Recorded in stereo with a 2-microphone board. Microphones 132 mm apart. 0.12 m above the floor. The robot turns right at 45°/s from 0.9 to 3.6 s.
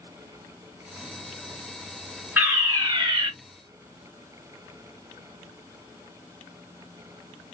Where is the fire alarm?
155° right, 3 m; by 3.3 s 115° right, 3 m.